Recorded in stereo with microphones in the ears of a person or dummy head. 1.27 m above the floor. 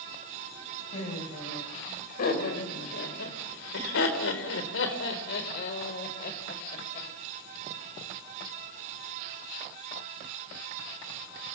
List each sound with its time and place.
0.9 s laughter: 40° left (ahead or behind), 6 m; by 7.1 s 45° left (ahead or behind), 5 m